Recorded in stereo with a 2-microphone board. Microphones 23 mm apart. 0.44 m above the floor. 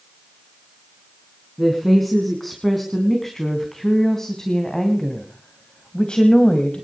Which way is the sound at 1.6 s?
5° left (ahead or behind).